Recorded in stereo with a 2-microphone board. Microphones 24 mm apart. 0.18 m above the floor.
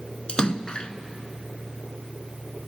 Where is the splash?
40° left (ahead or behind), 0.7 m.